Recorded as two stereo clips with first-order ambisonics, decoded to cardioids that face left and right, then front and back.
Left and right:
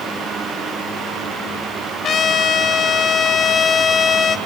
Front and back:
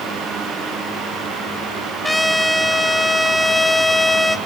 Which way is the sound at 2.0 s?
90° left.